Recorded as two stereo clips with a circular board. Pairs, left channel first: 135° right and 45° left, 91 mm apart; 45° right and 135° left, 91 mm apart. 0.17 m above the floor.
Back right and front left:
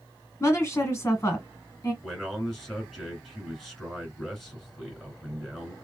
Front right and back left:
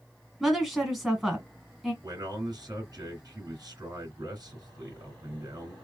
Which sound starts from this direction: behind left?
A man speaking, at 2.0 s.